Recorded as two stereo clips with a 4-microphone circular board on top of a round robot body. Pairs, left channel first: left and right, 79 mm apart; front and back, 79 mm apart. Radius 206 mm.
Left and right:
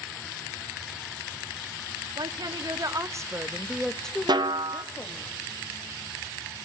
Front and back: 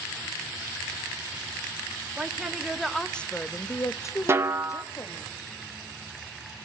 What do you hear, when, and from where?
2.2 s a woman speaking: 100° right, 2.0 m; by 5.3 s 45° left, 2 m
4.3 s a snare drum: 120° right, 1.2 m